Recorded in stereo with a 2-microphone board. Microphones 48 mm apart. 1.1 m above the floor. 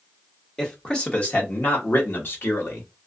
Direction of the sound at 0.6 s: 10° left (ahead or behind).